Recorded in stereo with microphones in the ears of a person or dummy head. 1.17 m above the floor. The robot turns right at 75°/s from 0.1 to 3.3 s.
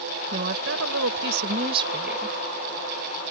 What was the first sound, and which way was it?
A woman speaking, 135° right.